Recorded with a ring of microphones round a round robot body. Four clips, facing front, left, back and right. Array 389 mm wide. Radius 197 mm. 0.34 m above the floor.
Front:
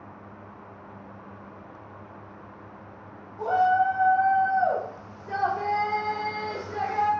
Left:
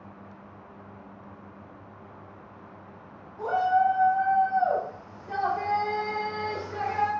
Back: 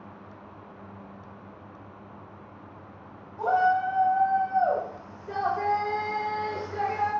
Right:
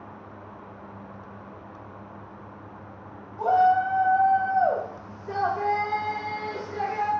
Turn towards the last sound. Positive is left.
turn(degrees=35)